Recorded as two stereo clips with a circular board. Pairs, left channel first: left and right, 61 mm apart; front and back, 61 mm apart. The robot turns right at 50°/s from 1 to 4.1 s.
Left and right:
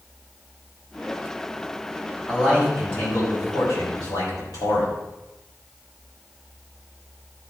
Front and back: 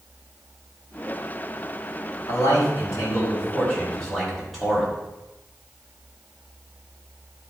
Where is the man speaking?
5° left, 5.5 m; by 4.9 s 95° left, 5.5 m.